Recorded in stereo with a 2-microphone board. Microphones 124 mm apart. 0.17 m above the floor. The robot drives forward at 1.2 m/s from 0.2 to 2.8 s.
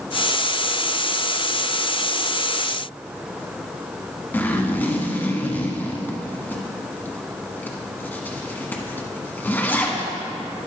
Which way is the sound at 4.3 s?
15° left (ahead or behind).